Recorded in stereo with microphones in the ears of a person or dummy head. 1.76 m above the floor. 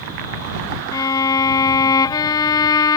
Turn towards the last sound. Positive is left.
turn(degrees=20)  # may be behind; listen again after turning